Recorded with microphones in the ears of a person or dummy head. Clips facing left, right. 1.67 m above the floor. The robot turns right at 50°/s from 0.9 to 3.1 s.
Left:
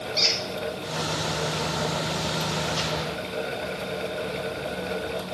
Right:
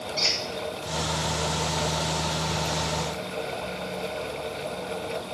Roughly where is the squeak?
Left.